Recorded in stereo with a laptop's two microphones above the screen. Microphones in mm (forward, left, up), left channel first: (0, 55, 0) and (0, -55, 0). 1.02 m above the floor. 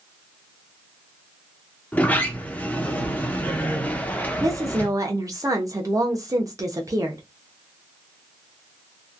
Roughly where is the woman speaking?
Right.